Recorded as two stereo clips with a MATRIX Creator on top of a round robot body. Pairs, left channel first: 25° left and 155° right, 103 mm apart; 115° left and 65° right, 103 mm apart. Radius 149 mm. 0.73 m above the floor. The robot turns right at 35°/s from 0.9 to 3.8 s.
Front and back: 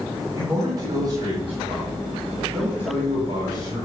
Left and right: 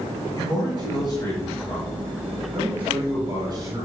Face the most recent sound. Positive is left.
turn(degrees=-105)